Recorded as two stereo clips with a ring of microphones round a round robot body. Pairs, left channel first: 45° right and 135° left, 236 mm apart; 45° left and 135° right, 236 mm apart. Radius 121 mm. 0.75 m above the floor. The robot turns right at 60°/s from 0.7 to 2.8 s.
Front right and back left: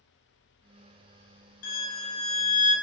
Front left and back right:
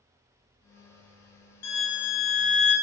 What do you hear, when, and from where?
1.6 s a violin: straight ahead, 1.1 m; by 2.7 s 65° left, 1.1 m